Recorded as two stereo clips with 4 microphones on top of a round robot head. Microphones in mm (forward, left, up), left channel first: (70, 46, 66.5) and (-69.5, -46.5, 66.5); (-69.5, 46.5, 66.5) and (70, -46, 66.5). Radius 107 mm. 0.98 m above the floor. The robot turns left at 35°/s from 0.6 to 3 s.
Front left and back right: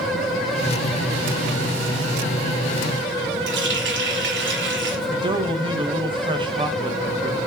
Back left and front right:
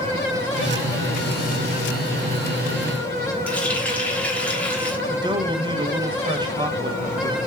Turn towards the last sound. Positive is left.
turn(degrees=-90)